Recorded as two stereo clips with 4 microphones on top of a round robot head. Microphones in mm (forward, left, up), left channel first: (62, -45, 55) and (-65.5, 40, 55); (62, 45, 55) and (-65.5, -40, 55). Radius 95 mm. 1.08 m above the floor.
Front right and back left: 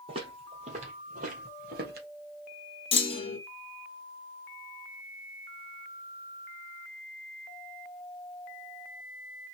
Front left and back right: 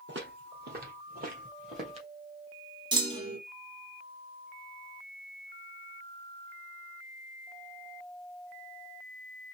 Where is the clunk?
85° right, 1.5 m.